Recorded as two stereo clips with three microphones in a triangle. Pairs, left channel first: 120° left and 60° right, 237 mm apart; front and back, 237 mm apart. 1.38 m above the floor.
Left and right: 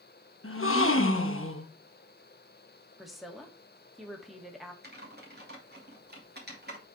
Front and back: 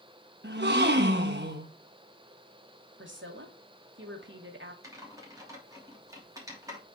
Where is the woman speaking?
150° right, 2 m.